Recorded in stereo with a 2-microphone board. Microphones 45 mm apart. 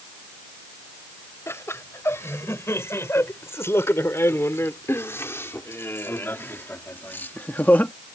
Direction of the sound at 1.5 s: 85° left.